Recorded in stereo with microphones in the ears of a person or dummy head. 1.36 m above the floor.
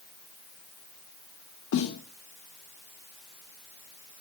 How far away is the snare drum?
About 1.1 m.